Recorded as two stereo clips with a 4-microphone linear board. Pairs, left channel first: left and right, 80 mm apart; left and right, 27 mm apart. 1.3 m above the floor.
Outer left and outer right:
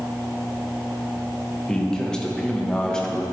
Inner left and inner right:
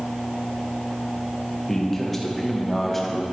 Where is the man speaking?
10° left (ahead or behind), 1.2 m.